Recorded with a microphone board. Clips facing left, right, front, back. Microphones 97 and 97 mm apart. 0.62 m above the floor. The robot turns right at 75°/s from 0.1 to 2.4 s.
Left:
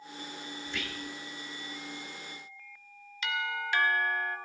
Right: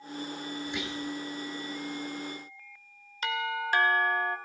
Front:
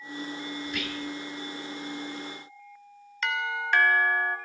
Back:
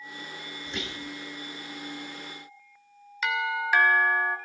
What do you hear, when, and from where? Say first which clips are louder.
0.7 s whispering: right 4 dB, even; 150° right, 0.6 m; by 1.1 s 115° right, 0.6 m
3.2 s a doorbell: right 3 dB, back 2 dB; 95° right, 1.4 m